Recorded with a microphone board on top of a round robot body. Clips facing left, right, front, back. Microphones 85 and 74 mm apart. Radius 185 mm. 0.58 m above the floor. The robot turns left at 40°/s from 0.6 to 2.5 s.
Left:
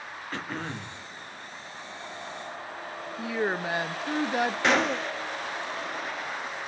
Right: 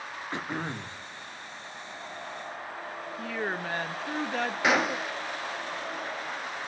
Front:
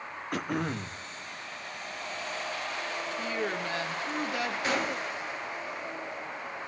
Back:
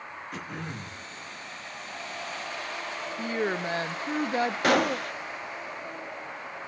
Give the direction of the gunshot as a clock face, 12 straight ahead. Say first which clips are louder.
Right 1 dB, back 9 dB; 6 o'clock.